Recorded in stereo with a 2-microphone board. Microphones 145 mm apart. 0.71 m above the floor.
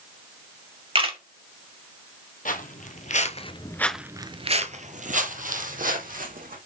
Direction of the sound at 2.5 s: 70° left (ahead or behind).